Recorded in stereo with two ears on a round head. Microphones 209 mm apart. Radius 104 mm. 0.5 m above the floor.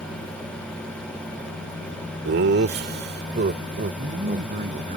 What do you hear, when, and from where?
2.2 s laughter: 50° right (ahead or behind); by 4.9 s 30° right (ahead or behind)
4.0 s a man speaking: 35° right (ahead or behind)